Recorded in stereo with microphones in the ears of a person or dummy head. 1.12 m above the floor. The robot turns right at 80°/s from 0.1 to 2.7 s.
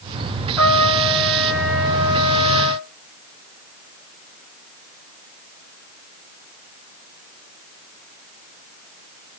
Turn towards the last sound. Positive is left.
turn(degrees=-5)